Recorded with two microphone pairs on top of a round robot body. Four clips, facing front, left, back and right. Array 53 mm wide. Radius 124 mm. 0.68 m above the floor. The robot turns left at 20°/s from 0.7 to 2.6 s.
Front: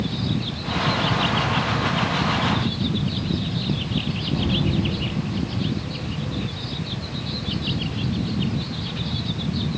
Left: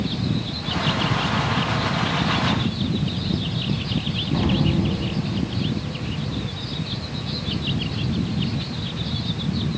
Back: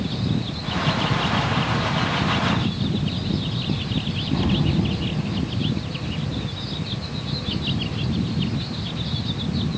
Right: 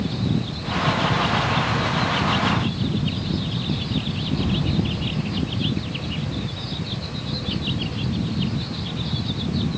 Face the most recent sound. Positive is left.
turn(degrees=110)